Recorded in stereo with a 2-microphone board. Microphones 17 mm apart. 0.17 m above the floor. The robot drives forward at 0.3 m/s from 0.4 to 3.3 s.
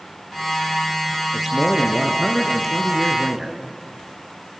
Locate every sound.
1.3 s a man speaking: 15° right (ahead or behind), 3 m; by 3.6 s 20° right (ahead or behind), 2.5 m